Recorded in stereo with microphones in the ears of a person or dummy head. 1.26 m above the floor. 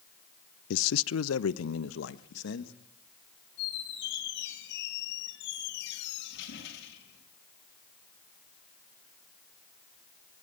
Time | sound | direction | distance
0.7 | a man speaking | 70° left (ahead or behind) | 0.6 m
3.6 | a squeak | 70° left (ahead or behind) | 5.5 m